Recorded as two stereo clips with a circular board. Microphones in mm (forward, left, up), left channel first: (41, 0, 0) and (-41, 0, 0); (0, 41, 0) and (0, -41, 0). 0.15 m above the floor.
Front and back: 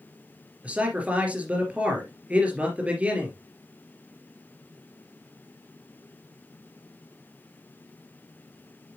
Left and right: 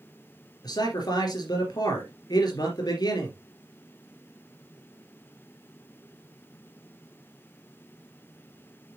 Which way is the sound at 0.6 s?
110° left.